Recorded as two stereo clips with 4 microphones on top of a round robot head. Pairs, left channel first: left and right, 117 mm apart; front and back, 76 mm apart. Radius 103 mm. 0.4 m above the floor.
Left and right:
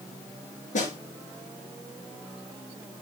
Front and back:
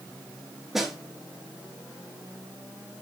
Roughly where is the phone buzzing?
No phone buzzing in this recording.